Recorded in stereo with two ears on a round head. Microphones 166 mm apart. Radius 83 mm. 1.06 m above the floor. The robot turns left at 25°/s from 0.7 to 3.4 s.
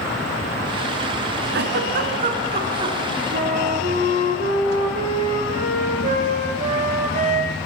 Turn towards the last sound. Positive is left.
turn(degrees=-45)  # may be behind; listen again after turning